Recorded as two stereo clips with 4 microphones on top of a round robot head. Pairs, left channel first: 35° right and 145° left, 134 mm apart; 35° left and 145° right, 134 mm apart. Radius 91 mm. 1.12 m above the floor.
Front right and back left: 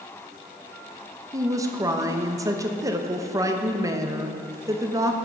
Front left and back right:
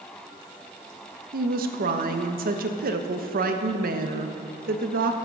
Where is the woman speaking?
145° right, 1.0 m.